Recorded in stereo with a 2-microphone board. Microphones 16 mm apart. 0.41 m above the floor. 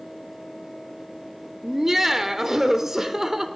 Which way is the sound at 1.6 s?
25° right (ahead or behind).